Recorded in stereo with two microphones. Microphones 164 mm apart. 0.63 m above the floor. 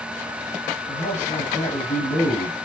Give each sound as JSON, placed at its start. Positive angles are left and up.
{"t": 0.9, "sound": "a man speaking", "side_deg": 45, "distance_m": 5.5}